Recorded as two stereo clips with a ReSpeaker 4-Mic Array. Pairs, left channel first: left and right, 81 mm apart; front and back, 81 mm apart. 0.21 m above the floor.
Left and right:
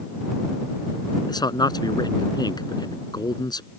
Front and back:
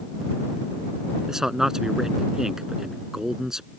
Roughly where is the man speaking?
Left.